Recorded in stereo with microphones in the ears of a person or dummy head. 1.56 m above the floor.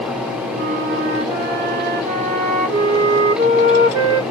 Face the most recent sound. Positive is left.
turn(degrees=-25)  # may be behind; listen again after turning